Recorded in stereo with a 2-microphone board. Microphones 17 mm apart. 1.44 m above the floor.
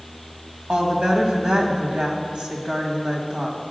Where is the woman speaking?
70° right (ahead or behind), 1.6 m.